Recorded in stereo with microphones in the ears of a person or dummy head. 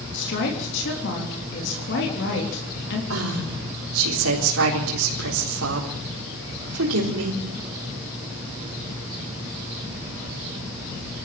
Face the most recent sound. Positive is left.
turn(degrees=-80)